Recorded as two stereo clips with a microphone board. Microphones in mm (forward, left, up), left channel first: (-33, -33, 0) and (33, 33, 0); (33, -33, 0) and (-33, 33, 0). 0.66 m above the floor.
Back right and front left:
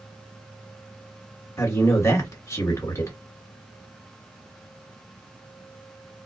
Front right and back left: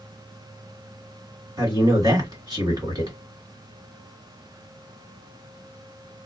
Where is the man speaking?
170° left, 1.6 m.